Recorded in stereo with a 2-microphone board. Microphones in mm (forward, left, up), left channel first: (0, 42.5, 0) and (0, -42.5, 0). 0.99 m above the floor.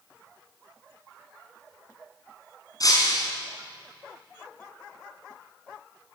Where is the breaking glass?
45° left (ahead or behind), 5 m.